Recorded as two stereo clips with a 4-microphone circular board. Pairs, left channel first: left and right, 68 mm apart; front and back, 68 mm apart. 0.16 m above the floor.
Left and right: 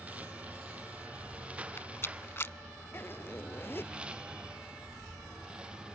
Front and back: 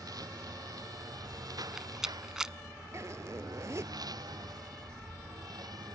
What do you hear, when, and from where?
0.0 s a lawn mower: 160° right; by 6.0 s 165° right
1.6 s a rattle: 105° left
2.9 s a zipper: 145° left